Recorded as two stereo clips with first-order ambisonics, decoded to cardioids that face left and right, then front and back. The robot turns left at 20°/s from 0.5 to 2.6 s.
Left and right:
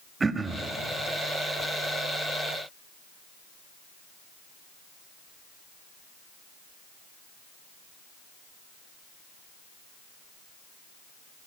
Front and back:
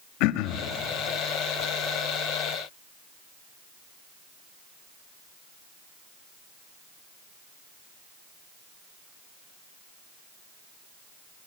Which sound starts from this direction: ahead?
Throat clearing, at 0.2 s.